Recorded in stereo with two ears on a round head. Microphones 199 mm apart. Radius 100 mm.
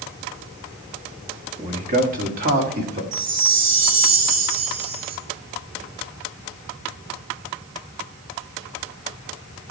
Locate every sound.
1.6 s a man speaking: 30° right (ahead or behind), 1.9 m; by 3.0 s 50° right (ahead or behind), 3 m
3.1 s a chime: 80° right, 2.5 m